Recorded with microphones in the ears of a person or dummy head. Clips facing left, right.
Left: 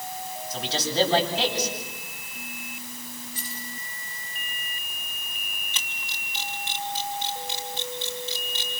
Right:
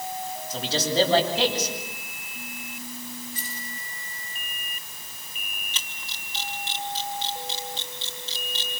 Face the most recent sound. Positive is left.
turn(degrees=-30)  # may be behind; listen again after turning